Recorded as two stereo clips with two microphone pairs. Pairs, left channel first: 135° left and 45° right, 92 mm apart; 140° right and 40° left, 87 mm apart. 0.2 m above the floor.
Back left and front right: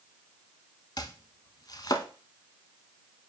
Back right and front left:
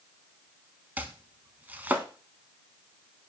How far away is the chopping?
About 0.7 m.